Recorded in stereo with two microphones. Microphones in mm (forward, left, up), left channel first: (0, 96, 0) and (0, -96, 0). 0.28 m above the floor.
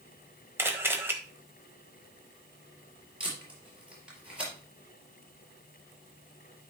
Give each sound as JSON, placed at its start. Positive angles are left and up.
{"t": 0.6, "sound": "a camera shutter", "side_deg": -10, "distance_m": 1.4}
{"t": 3.2, "sound": "tape being pulled", "side_deg": -5, "distance_m": 4.0}